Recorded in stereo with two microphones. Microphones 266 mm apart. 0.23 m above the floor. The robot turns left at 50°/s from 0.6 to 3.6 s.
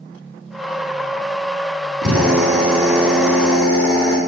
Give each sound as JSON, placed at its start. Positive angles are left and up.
{"t": 2.0, "sound": "a drill", "azimuth_deg": -105, "distance_m": 2.5}